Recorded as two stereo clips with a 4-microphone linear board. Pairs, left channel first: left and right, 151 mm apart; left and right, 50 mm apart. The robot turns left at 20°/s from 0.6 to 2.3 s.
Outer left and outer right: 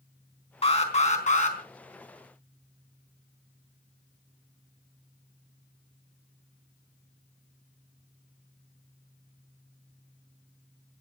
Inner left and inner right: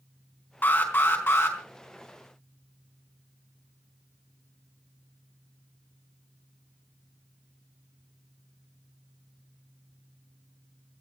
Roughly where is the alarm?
Left.